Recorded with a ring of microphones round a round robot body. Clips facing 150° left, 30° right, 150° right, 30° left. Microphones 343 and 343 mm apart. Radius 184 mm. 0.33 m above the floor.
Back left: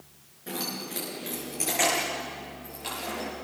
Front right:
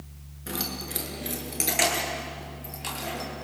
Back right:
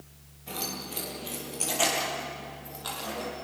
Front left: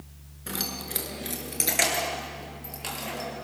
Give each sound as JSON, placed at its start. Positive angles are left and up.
{"t": 0.5, "sound": "keys jangling", "azimuth_deg": 35, "distance_m": 4.5}